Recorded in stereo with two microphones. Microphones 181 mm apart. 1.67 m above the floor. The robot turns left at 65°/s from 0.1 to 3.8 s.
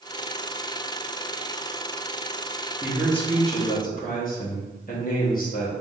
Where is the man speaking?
165° right, 1.5 m; by 5.7 s 130° left, 1.5 m.